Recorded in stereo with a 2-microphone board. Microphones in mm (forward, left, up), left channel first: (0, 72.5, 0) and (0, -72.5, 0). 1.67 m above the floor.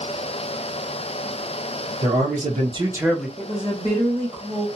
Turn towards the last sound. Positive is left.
turn(degrees=-20)  # may be behind; listen again after turning